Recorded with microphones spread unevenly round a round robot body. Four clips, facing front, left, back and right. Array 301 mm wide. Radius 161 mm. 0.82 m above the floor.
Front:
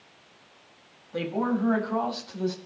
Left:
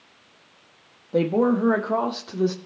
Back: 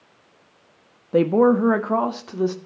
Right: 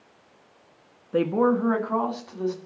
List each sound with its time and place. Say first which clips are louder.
1.1 s a woman speaking: left 1 dB, back 11 dB; 175° left, 1.3 m; by 2.5 s 145° left, 2.5 m